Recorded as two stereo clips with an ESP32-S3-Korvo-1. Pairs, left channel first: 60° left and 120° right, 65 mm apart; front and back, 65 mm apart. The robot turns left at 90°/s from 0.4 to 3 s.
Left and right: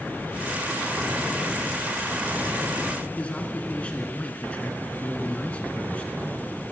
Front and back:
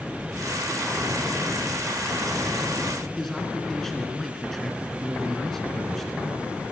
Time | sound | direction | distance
3.2 | a man speaking | 80° left | 1.7 m